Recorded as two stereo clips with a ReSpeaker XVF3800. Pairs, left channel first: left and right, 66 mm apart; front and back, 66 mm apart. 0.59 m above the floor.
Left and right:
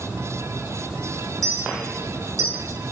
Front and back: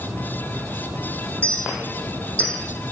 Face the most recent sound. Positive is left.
turn(degrees=-75)